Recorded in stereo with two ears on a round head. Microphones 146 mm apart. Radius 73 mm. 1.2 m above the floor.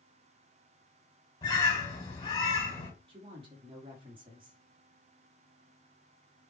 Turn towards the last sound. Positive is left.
turn(degrees=-35)  # may be behind; listen again after turning